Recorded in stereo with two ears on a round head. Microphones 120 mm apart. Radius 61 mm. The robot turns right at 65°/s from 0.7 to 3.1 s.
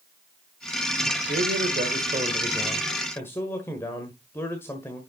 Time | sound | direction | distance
1.3 | a man speaking | 100° right | 1.7 m